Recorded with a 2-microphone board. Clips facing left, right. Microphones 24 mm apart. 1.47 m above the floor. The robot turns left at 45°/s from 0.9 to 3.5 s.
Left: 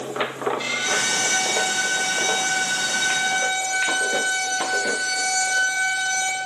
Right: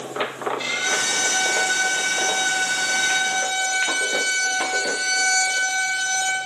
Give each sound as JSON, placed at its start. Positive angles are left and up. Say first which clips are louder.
{"t": 0.6, "sound": "a violin", "louder": "right 1 dB", "azimuth_deg": -10, "distance_m": 2.0}